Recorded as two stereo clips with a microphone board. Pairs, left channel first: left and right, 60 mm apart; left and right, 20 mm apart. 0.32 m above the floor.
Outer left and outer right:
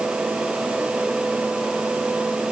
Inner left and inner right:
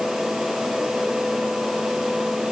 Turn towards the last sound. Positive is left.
No sound to turn to.